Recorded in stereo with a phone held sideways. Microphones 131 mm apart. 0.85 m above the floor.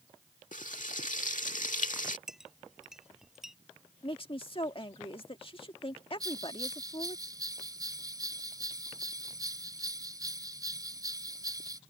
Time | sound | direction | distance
0.5 | frying | 75° left (ahead or behind) | ?
2.3 | a clink | 5° right (ahead or behind) | ?
4.0 | a woman speaking | 45° left (ahead or behind) | ?
6.2 | a bell | 25° right (ahead or behind) | ?